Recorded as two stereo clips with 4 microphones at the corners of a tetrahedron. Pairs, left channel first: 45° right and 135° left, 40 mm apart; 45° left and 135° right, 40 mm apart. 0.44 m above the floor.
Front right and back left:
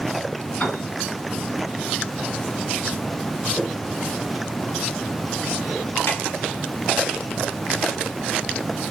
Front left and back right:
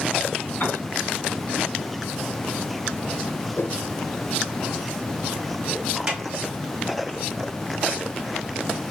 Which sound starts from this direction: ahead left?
A whoosh, at 3.6 s.